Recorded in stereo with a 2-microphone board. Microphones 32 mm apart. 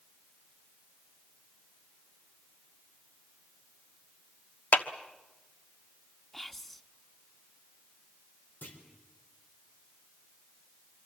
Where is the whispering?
10° left (ahead or behind), 1.0 m.